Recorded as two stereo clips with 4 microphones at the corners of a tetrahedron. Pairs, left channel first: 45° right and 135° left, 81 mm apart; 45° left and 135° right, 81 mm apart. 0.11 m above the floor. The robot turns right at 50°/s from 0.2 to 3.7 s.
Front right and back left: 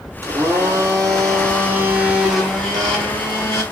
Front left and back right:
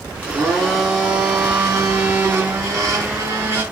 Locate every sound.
0.2 s a blender: 110° left, 2 m; by 3.6 s 80° right, 2 m